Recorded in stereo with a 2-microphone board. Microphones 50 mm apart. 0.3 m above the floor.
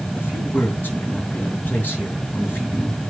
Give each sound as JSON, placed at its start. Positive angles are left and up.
{"t": 0.1, "sound": "a man speaking", "side_deg": 40, "distance_m": 5.0}